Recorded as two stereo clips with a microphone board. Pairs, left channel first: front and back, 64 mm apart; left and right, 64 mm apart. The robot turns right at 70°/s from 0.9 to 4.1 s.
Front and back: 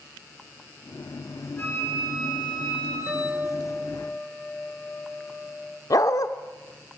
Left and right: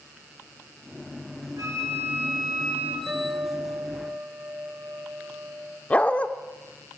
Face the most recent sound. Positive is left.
turn(degrees=20)